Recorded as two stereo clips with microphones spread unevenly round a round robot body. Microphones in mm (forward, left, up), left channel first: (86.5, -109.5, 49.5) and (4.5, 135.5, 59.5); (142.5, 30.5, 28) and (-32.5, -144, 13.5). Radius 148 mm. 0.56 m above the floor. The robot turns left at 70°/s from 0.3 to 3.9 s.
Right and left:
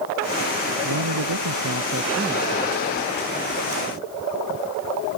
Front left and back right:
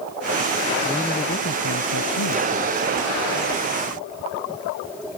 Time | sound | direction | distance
0.8 | a man speaking | 140° left | ?